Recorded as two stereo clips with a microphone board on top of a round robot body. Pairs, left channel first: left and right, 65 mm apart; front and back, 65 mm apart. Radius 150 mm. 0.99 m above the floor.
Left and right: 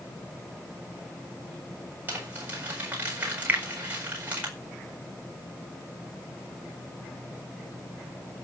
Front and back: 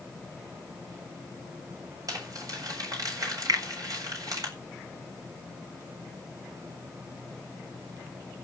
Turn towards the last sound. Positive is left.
turn(degrees=-155)